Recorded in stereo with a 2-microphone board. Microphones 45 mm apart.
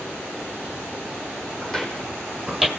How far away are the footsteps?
About 3 m.